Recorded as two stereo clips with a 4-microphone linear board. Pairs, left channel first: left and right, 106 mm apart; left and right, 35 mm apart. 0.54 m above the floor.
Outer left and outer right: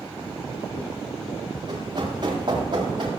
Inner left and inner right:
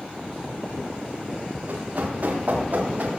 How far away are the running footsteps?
About 8 m.